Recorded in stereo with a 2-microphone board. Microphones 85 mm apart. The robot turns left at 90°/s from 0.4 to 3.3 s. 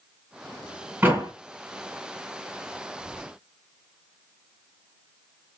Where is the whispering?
20° right (ahead or behind), 1.8 m; by 3.4 s 5° right (ahead or behind), 1.8 m.